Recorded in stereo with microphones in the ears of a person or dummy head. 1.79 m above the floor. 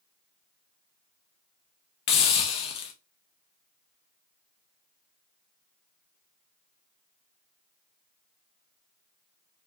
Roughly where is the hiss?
Left.